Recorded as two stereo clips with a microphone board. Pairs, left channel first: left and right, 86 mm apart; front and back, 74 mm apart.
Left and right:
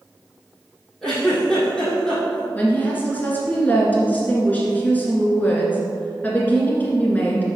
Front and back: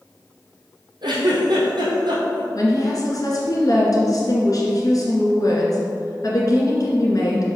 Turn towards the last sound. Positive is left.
turn(degrees=20)